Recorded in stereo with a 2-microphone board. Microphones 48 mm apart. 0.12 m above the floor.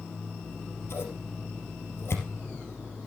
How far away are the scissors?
About 3 m.